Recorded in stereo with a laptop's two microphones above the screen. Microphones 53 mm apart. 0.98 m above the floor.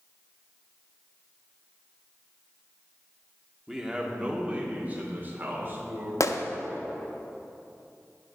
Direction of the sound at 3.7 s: 10° right (ahead or behind).